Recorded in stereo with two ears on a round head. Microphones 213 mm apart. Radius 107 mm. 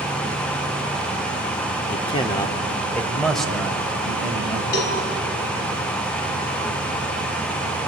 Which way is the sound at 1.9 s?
30° left (ahead or behind).